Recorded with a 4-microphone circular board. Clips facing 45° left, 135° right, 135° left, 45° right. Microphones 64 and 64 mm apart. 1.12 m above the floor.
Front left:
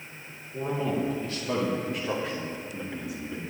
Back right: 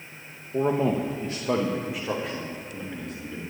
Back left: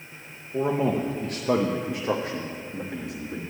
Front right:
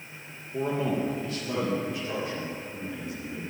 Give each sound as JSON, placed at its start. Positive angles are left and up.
{"t": 0.5, "sound": "a man speaking", "azimuth_deg": -155, "distance_m": 0.9}